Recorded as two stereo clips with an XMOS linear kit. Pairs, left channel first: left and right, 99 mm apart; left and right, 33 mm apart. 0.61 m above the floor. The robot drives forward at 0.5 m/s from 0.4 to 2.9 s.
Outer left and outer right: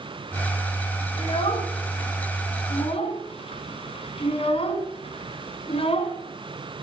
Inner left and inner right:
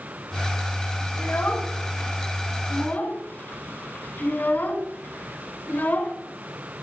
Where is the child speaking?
80° left, 2 m.